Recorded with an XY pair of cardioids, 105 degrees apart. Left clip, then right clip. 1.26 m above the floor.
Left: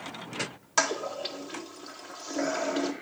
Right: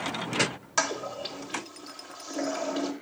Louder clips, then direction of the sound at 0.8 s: Left 1 dB; 10° left.